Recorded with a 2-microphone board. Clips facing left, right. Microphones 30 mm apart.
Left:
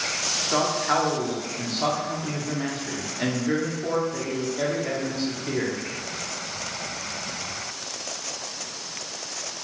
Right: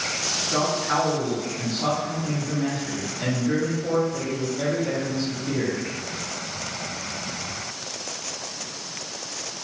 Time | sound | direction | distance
0.5 | a man speaking | 45° left (ahead or behind) | 0.9 m